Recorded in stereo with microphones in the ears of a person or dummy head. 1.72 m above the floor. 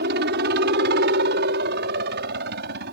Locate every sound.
0.0 s a helicopter: 65° right (ahead or behind)